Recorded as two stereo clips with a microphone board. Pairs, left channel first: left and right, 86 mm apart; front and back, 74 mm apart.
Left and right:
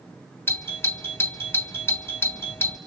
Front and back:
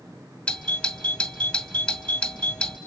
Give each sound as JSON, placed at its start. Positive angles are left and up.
{"t": 0.5, "sound": "a doorbell", "azimuth_deg": 60, "distance_m": 1.5}